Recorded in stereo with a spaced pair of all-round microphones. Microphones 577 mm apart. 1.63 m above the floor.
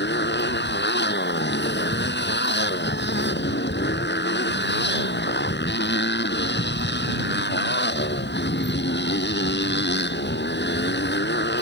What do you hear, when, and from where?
0.0 s a motorcycle: 20° left (ahead or behind)